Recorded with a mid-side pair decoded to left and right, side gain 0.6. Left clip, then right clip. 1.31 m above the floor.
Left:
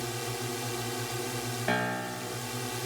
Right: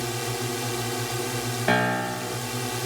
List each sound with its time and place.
0.0 s a drone: 35° right
1.7 s a piano: 40° right